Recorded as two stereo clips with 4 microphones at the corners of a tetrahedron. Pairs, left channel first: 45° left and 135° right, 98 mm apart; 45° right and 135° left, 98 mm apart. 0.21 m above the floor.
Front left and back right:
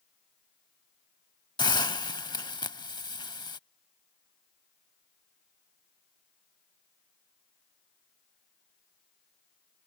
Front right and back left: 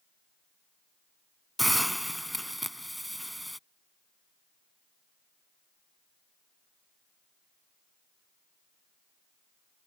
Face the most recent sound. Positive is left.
turn(degrees=45)